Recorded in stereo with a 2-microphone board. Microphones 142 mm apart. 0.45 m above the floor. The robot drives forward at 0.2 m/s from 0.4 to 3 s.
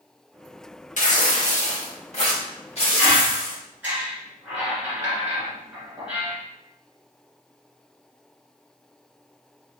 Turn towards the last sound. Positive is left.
turn(degrees=-10)  # may be behind; listen again after turning